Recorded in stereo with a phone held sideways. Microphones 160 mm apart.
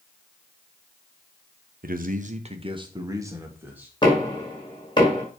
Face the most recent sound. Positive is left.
turn(degrees=30)  # may be behind; listen again after turning